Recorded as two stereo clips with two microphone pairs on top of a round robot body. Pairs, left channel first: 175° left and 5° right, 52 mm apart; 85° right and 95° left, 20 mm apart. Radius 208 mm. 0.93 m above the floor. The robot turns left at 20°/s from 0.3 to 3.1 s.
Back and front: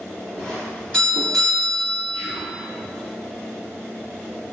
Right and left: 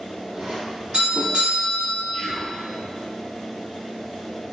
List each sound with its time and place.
0.3 s a doorbell: 110° left, 1.6 m; by 2.3 s 70° left, 1.6 m
2.1 s whispering: straight ahead, 1.5 m; by 2.6 s 5° right, 1.5 m